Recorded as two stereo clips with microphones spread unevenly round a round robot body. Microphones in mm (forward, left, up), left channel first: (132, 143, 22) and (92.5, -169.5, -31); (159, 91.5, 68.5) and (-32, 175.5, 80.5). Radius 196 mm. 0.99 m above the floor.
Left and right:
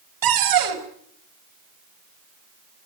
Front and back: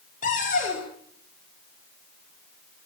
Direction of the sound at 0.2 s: 90° right.